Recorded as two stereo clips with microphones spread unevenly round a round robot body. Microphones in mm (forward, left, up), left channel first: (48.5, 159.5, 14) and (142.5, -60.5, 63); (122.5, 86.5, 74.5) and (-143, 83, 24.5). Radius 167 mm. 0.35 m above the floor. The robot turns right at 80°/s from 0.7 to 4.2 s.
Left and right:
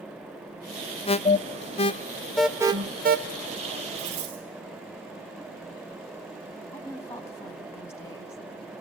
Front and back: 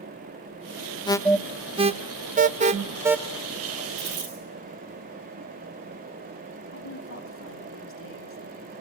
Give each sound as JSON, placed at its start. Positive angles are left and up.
{"t": 1.1, "sound": "an alarm", "azimuth_deg": 80, "distance_m": 0.8}
{"t": 4.0, "sound": "a dropped coin", "azimuth_deg": -145, "distance_m": 4.5}
{"t": 6.7, "sound": "a woman speaking", "azimuth_deg": 40, "distance_m": 3.0}